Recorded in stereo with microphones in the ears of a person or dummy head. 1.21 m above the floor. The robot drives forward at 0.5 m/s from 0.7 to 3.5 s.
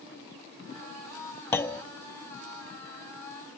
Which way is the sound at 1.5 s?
15° left (ahead or behind).